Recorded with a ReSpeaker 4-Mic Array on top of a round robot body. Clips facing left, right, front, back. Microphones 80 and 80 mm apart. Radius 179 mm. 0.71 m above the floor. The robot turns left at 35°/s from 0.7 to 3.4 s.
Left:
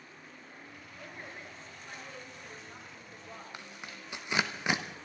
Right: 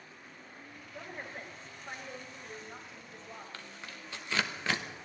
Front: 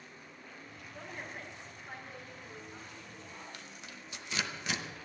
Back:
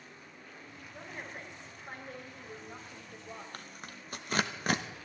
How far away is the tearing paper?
About 1.5 m.